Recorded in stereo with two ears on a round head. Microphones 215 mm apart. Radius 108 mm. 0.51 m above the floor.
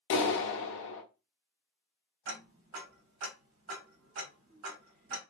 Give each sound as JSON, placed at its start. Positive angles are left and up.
{"t": 0.1, "sound": "a clap", "side_deg": 50, "distance_m": 0.8}
{"t": 2.2, "sound": "ticking", "side_deg": -55, "distance_m": 2.5}